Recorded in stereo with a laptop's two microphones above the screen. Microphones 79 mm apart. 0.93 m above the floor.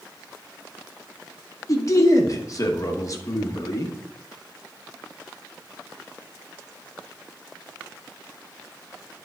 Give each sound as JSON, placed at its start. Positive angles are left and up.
{"t": 1.7, "sound": "a man speaking", "side_deg": 45, "distance_m": 1.0}